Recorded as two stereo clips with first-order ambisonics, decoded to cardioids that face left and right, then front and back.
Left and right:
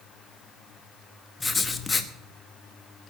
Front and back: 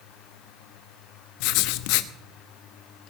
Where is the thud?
No thud in this recording.